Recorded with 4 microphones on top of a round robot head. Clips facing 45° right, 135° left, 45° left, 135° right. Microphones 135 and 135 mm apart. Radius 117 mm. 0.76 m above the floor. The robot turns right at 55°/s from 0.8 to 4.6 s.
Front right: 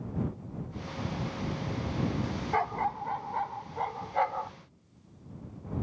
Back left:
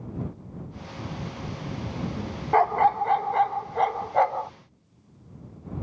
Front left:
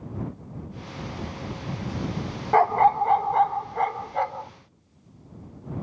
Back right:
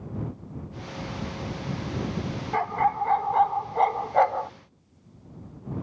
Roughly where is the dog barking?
Left.